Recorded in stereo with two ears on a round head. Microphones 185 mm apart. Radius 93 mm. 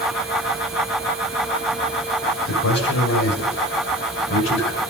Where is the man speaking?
85° left, 6 m; by 4.8 s 80° left, 5 m.